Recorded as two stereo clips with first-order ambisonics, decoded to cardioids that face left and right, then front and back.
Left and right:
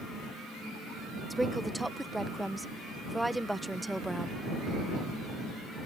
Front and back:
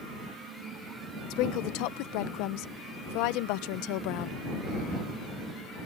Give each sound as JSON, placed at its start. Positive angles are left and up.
{"t": 1.3, "sound": "a woman speaking", "azimuth_deg": -5}